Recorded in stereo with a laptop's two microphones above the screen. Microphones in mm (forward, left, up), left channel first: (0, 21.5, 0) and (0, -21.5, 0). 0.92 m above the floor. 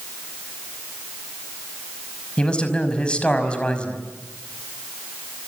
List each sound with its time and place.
2.4 s a man speaking: 20° left (ahead or behind), 5 m